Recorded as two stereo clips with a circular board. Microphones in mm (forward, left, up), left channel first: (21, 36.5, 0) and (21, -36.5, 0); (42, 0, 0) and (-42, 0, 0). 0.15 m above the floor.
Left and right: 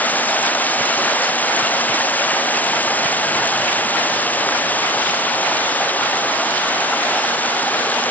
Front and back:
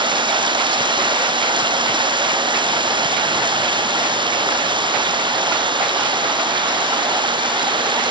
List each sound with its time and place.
0.0 s running water: 155° left